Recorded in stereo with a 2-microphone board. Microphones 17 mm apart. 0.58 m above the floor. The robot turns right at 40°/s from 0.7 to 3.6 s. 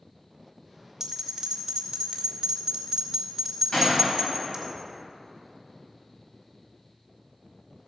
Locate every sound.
1.0 s a bell: 25° right (ahead or behind), 1.6 m; by 4.7 s 20° right (ahead or behind), 1.6 m
3.7 s a gunshot: 40° left (ahead or behind), 4 m